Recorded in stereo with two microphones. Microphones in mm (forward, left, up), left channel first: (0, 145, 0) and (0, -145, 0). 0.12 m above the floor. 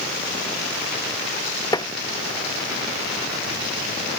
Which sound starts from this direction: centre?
Tapping, at 1.7 s.